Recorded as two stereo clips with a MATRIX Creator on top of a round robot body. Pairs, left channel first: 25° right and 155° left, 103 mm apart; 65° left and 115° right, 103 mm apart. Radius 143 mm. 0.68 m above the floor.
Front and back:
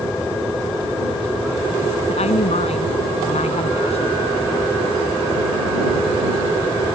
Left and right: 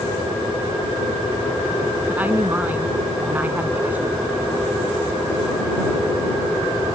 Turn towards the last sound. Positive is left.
turn(degrees=-35)